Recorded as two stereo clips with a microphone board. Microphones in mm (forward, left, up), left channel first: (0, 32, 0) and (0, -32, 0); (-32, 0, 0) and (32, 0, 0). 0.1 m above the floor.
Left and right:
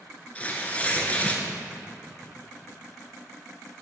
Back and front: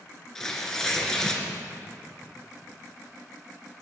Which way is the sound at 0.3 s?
110° left.